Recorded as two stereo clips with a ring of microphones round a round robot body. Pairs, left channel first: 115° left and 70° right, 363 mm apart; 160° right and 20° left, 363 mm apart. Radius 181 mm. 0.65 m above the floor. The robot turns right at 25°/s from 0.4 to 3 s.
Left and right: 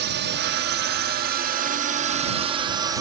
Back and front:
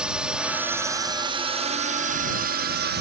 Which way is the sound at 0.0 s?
60° right.